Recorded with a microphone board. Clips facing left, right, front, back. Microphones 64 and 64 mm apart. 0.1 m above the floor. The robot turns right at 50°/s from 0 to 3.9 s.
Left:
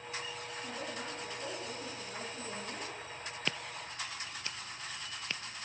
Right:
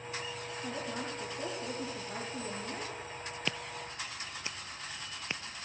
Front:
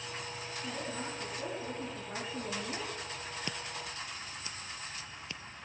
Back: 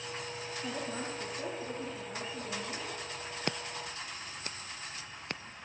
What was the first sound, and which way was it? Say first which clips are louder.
A woman speaking: right 4 dB, back 1 dB; 150° right.